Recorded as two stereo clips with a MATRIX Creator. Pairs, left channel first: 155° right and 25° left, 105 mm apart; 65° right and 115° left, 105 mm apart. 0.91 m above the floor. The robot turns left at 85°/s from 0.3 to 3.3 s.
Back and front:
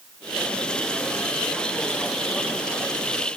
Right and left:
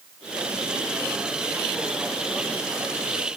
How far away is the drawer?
I don't hear a drawer.